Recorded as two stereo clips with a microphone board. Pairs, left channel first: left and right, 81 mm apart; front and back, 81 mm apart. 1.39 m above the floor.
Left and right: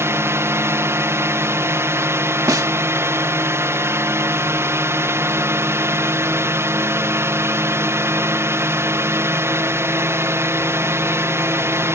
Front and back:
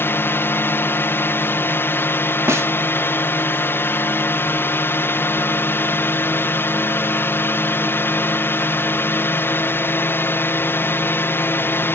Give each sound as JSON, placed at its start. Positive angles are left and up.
{"t": 0.0, "sound": "a drone", "azimuth_deg": -50}
{"t": 2.5, "sound": "a snare drum", "azimuth_deg": -125}